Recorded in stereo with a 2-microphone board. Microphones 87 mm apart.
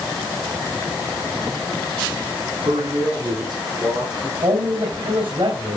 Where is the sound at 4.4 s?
75° right (ahead or behind), 3.5 m.